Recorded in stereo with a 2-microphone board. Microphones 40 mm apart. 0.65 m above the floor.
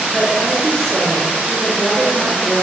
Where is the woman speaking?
10° left (ahead or behind), 2.5 m.